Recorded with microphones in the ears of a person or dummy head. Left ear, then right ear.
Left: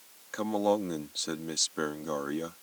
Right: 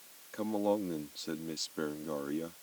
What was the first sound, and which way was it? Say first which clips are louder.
A man speaking: left 4 dB; 45° left (ahead or behind).